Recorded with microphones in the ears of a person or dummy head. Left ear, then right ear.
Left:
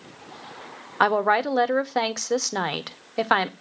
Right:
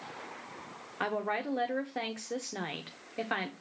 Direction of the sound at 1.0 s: 50° left (ahead or behind).